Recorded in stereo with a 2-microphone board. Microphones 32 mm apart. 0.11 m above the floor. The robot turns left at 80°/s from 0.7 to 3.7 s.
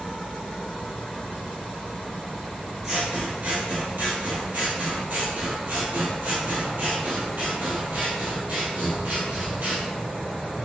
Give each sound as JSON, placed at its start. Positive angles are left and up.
{"t": 2.8, "sound": "scissors", "azimuth_deg": -25, "distance_m": 1.9}